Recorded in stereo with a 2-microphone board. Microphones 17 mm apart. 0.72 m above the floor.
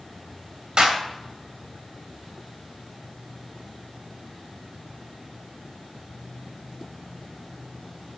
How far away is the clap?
About 2.5 m.